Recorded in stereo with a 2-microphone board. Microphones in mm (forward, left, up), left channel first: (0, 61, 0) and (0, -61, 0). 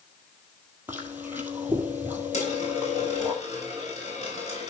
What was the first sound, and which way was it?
Chewing, 15° right (ahead or behind).